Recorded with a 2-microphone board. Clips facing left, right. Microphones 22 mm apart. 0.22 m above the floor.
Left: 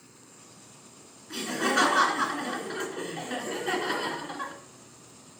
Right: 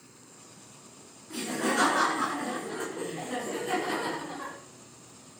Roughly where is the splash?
No splash in this recording.